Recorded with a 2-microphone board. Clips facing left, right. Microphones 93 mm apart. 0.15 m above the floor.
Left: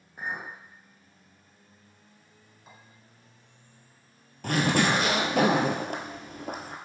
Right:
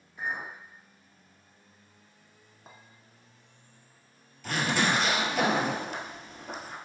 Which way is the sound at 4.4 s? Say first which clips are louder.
Left 3 dB; 55° left (ahead or behind).